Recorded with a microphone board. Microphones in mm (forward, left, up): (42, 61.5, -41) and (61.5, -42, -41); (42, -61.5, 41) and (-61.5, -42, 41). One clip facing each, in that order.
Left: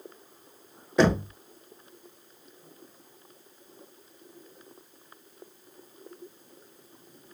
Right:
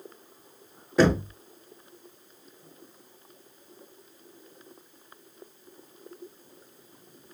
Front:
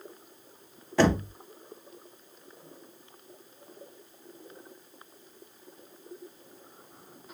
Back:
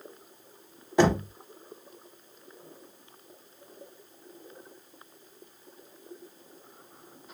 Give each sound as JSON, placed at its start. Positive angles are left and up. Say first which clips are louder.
{"t": 1.0, "sound": "knocking", "louder": "right 1 dB, back 1 dB", "azimuth_deg": -165, "distance_m": 0.7}